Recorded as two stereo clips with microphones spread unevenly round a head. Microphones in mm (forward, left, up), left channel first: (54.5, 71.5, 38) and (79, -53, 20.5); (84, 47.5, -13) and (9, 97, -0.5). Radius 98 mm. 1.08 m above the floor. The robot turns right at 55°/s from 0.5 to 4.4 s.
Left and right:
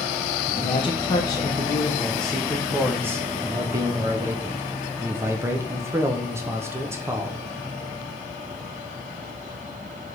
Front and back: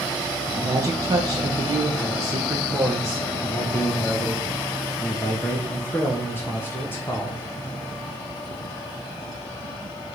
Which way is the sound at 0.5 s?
100° left.